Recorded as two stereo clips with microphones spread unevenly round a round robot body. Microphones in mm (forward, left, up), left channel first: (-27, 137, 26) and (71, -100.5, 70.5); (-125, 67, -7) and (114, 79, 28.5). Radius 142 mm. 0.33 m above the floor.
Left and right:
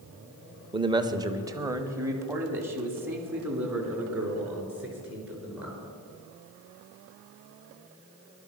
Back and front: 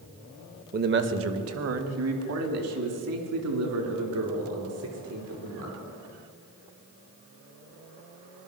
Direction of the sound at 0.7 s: 5° left.